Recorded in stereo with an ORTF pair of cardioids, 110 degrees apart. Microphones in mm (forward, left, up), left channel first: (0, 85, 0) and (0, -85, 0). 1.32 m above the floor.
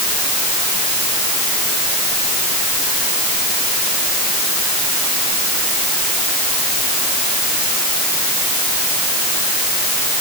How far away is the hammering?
No hammering in this recording.